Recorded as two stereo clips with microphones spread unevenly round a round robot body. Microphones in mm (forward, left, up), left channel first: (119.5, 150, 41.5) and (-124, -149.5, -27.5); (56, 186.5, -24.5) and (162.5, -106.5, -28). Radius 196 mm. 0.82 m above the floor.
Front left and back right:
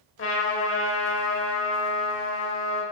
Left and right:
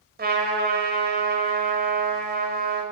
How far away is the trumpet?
About 3.5 m.